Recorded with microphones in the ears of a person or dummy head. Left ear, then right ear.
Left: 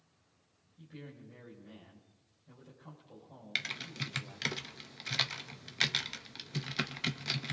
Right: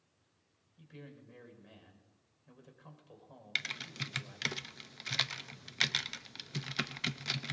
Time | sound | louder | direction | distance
0.8 | a man speaking | left 2 dB | 75° right (ahead or behind) | 5 m
3.5 | typing on a keyboard | even | 10° right (ahead or behind) | 0.5 m